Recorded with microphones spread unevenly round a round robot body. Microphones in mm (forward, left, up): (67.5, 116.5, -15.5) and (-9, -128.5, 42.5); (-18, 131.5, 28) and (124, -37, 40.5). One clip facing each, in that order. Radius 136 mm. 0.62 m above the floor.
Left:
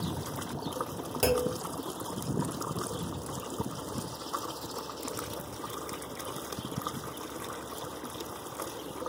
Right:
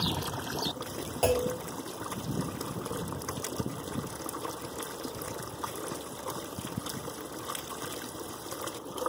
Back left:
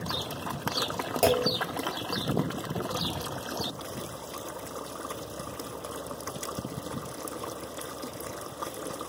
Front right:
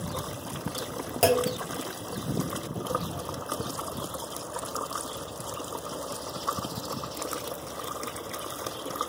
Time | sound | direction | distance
1.2 | a clunk | 35° left | 1.6 m